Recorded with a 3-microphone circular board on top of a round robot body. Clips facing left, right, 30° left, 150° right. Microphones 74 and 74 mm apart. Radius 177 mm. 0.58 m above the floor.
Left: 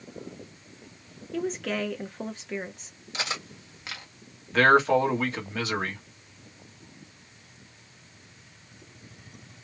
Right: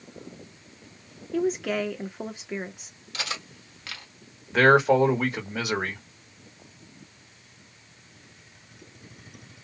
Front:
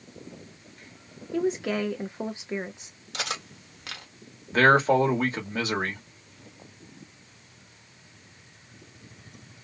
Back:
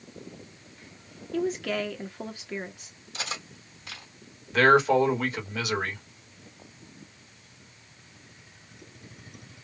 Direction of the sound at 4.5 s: 20° right.